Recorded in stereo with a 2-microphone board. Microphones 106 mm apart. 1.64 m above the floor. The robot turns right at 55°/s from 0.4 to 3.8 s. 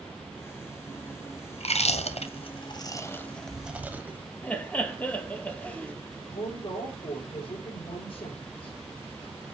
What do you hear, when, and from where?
1.5 s chewing: 70° left (ahead or behind), 1.0 m; by 4.2 s 15° right (ahead or behind), 1.0 m
4.4 s laughter: 15° left (ahead or behind), 1.6 m
6.2 s a woman speaking: 55° left (ahead or behind), 5 m